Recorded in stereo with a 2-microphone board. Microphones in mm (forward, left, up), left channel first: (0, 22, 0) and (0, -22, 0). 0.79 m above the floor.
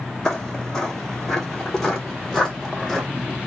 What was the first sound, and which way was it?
Footsteps, 10° left (ahead or behind).